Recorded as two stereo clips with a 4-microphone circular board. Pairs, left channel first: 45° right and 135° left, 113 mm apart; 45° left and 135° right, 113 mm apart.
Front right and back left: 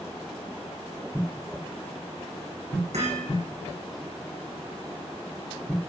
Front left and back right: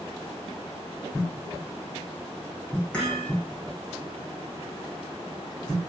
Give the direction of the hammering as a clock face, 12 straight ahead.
8 o'clock.